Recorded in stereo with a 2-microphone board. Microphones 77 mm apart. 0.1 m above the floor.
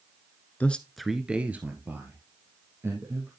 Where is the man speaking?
20° left (ahead or behind), 1.1 m; by 3.3 s 35° right (ahead or behind), 4 m.